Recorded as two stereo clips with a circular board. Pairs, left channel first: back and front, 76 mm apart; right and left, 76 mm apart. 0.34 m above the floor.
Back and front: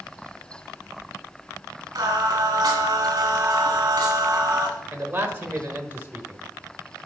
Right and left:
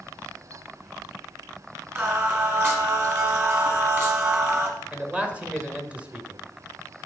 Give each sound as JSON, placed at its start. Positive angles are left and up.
{"t": 1.9, "sound": "singing", "azimuth_deg": 30, "distance_m": 1.7}
{"t": 4.9, "sound": "a man speaking", "azimuth_deg": 35, "distance_m": 1.0}